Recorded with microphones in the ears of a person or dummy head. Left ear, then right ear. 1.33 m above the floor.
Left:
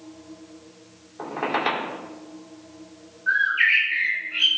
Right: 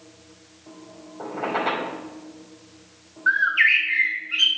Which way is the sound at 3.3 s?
50° right (ahead or behind).